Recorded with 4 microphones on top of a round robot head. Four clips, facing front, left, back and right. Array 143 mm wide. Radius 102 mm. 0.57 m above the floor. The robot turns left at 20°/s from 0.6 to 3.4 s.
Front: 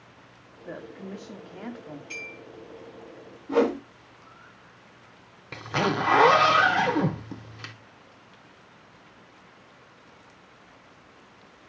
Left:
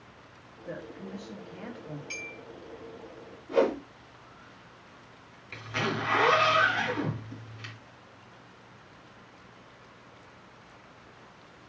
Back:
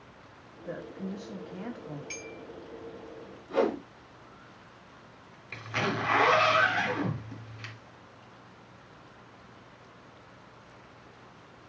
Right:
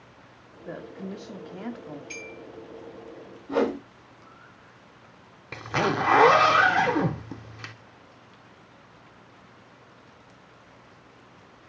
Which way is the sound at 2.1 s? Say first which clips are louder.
Right 3 dB, front 1 dB; 160° right.